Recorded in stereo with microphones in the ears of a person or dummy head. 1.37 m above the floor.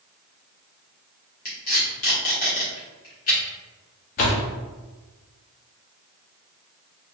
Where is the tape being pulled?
45° left (ahead or behind), 1.4 m.